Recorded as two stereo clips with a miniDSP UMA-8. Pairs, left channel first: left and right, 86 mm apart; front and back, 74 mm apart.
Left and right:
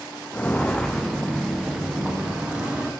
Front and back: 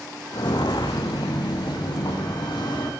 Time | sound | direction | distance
0.3 | footsteps | 20° left | 0.5 m